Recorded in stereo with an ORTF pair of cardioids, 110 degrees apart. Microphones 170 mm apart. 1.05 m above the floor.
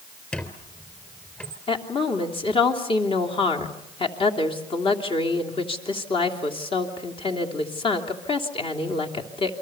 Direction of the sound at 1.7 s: 30° left.